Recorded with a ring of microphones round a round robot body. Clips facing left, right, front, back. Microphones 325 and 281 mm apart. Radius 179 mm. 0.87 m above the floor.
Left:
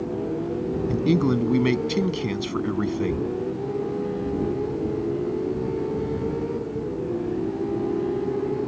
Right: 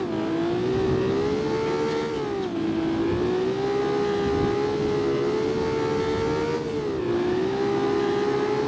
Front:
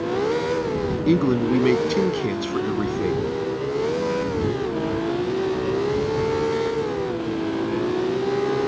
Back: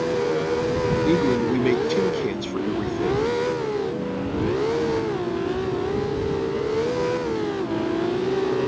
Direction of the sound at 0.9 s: 75° left.